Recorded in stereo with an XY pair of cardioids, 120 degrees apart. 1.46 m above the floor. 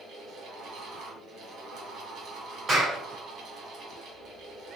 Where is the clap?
40° right, 2.5 m.